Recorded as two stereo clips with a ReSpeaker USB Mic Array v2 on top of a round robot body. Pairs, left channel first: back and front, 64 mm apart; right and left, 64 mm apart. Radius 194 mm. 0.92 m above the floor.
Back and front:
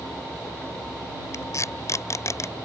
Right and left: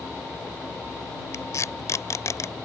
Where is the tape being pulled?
135° right.